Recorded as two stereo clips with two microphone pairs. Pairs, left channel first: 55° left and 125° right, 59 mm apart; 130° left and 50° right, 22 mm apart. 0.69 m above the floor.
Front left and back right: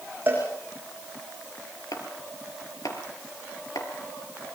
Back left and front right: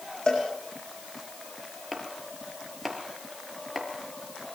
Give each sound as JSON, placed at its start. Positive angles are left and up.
{"t": 0.3, "sound": "a cowbell", "azimuth_deg": 175, "distance_m": 9.5}
{"t": 1.9, "sound": "chopping", "azimuth_deg": 35, "distance_m": 4.5}